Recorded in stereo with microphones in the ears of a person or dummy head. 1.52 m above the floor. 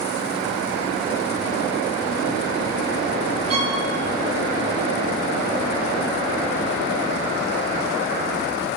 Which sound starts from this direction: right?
A violin, at 3.5 s.